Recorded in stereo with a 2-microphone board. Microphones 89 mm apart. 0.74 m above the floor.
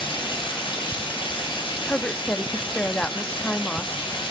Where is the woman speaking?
15° left (ahead or behind), 0.8 m.